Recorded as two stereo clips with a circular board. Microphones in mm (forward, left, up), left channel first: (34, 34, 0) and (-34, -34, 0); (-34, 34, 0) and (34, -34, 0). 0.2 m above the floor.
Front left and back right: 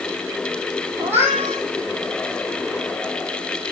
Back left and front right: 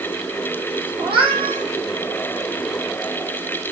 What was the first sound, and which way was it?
A cat meowing, 70° right.